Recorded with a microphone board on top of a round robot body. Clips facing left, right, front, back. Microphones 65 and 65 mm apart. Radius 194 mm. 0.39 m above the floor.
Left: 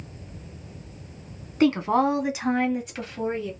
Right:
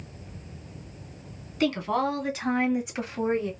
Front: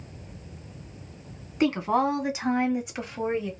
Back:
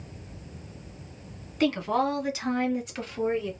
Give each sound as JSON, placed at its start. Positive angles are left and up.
{"t": 1.6, "sound": "a woman speaking", "azimuth_deg": 60, "distance_m": 1.6}